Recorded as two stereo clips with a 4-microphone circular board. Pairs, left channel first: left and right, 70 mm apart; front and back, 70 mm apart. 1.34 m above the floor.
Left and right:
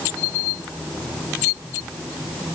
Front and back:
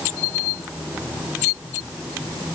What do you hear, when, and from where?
Only background noise.